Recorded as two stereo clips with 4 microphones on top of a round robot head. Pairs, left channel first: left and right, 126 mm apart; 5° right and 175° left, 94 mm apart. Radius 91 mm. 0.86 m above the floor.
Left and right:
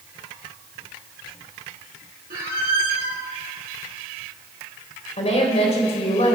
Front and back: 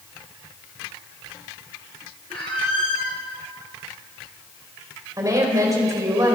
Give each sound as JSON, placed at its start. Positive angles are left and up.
{"t": 2.3, "sound": "a squeak", "azimuth_deg": -60, "distance_m": 1.9}
{"t": 5.2, "sound": "a woman speaking", "azimuth_deg": 125, "distance_m": 3.5}